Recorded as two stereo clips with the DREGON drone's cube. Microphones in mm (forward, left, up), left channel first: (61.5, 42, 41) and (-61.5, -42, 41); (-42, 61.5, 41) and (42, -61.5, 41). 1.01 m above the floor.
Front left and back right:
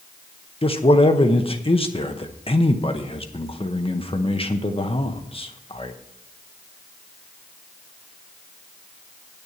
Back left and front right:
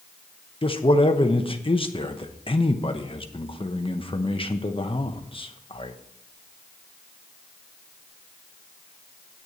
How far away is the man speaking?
About 0.9 m.